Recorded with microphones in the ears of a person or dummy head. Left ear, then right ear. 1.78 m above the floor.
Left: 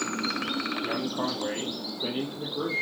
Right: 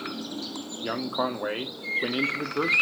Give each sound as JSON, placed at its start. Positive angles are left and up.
{"t": 0.8, "sound": "a man speaking", "side_deg": -55, "distance_m": 0.7}